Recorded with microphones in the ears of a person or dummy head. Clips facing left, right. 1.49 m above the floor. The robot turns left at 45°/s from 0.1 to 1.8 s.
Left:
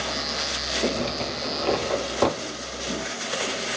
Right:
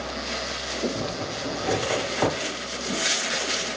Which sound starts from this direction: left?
A zipper, at 0.9 s.